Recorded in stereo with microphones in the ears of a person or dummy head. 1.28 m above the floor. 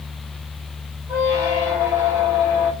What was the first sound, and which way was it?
A squeak, 10° right (ahead or behind).